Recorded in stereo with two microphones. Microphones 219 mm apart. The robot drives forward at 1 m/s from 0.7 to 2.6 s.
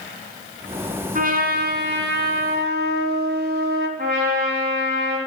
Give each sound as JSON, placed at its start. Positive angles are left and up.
{"t": 1.1, "sound": "a trumpet", "side_deg": -40, "distance_m": 1.9}
{"t": 4.0, "sound": "a trumpet", "side_deg": -45, "distance_m": 4.5}